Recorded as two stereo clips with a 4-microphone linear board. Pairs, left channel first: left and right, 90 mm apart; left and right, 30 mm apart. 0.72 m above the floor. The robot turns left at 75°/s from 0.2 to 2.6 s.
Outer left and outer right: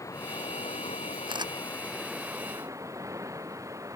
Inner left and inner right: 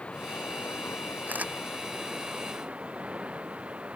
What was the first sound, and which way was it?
Running water, 145° left.